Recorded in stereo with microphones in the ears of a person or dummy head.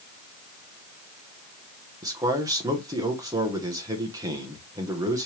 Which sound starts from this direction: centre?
A man speaking, at 2.0 s.